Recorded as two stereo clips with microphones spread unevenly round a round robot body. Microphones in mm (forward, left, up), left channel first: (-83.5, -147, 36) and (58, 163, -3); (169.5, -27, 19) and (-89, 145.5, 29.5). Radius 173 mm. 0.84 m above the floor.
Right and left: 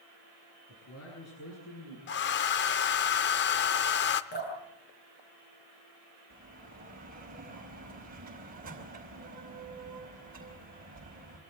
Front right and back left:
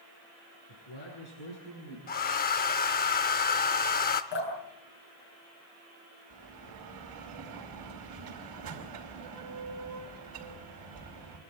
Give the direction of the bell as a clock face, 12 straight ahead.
8 o'clock.